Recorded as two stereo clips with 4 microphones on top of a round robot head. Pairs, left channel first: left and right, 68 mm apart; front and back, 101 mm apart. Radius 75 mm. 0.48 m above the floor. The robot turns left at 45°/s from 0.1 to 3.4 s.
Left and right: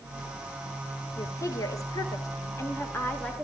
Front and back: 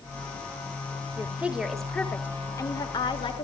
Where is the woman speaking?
115° left, 2 m; by 3.4 s 15° left, 2 m.